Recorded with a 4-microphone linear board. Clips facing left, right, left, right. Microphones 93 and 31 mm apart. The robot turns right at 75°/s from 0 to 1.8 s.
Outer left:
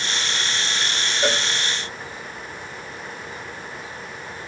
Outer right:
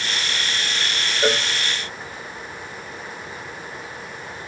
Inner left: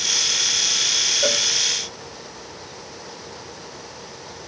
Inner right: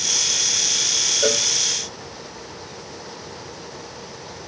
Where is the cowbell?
20° right (ahead or behind), 0.5 m; by 1.5 s 5° right (ahead or behind), 0.5 m.